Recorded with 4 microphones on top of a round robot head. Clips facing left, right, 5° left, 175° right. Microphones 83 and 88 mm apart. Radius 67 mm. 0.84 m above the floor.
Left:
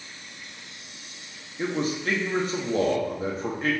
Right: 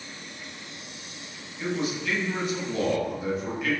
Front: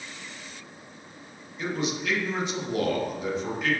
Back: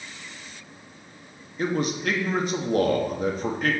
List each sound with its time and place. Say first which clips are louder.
1.6 s a man speaking: left 2 dB, back 4 dB; 145° left, 1.3 m